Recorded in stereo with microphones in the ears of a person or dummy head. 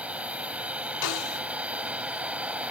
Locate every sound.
0.0 s a machine running: 10° right (ahead or behind)
1.0 s a snare drum: 80° left